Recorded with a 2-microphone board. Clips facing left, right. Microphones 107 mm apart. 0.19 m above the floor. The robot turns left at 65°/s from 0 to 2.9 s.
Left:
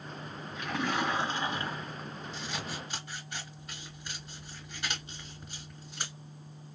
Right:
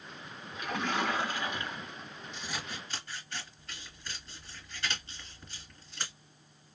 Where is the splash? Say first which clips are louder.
Left 1 dB; 170° right, 1.8 m; by 2.1 s 90° left, 1.8 m.